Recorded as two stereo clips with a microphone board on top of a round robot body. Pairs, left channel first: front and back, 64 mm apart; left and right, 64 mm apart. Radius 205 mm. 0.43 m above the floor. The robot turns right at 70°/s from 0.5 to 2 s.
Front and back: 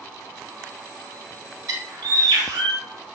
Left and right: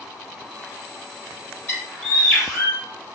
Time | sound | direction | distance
1.7 | a bird | 145° left | 1.2 m